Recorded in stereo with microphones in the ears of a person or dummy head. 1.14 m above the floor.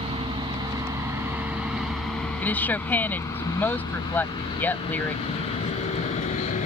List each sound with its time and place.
0.0 s a vehicle: 35° right (ahead or behind); by 6.7 s 40° left (ahead or behind)
2.4 s a woman speaking: 10° left (ahead or behind)